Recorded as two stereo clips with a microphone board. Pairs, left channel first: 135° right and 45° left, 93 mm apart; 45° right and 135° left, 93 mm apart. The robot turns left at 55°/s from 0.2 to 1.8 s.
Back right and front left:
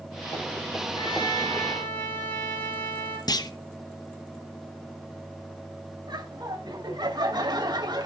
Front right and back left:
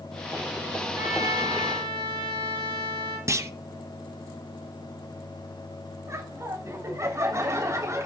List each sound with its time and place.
0.9 s a trumpet: 160° right, 7.5 m; by 3.2 s 155° left, 7.5 m
3.3 s a clunk: 175° right, 0.8 m
6.1 s laughter: 80° left, 3.5 m